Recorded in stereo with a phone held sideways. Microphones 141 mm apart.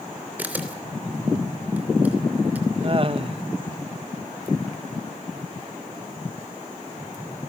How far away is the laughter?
About 0.9 m.